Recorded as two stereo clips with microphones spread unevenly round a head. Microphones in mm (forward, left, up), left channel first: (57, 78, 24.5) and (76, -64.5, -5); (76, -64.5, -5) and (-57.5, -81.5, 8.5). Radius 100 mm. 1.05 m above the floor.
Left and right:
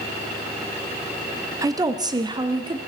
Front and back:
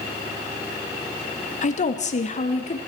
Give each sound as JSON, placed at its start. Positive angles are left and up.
{"t": 1.6, "sound": "a woman speaking", "azimuth_deg": -20, "distance_m": 1.2}